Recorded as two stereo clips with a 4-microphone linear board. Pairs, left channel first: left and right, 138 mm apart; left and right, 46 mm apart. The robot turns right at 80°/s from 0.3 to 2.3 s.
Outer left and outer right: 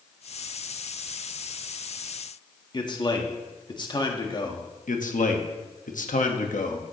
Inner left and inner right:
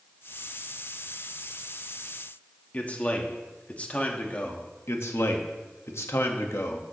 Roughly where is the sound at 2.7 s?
Left.